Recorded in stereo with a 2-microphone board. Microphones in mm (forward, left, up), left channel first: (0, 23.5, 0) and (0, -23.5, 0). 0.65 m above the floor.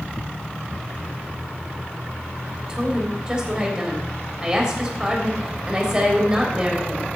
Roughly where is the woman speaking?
Centre.